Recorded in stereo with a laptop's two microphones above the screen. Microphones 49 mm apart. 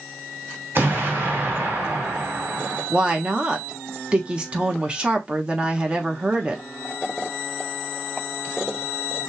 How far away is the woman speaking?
About 1.3 m.